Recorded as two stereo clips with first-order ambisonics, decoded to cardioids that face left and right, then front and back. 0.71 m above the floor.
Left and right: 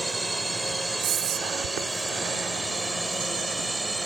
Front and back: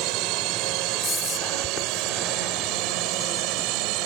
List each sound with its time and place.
0.0 s a drone: 170° right
1.0 s whispering: 65° right